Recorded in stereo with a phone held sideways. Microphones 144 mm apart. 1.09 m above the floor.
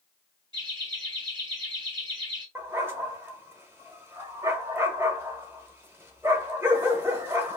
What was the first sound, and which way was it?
Laughter, 35° right (ahead or behind).